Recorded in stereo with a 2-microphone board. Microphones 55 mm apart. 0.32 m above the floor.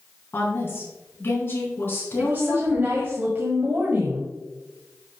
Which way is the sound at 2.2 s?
35° right (ahead or behind).